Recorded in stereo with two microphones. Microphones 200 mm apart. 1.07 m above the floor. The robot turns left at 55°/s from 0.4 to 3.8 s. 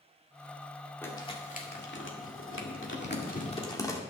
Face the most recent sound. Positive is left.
turn(degrees=15)  # may be behind; listen again after turning